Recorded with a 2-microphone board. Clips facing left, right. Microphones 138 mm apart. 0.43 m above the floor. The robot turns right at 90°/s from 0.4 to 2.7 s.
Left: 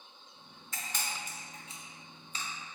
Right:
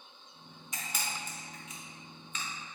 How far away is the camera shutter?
About 0.7 m.